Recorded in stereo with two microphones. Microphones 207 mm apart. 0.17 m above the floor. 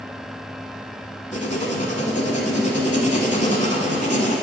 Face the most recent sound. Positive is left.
turn(degrees=35)  # may be behind; listen again after turning